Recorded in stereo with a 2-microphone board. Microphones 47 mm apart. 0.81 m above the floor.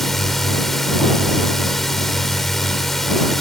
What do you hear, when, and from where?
0.0 s a drone: 5° left (ahead or behind)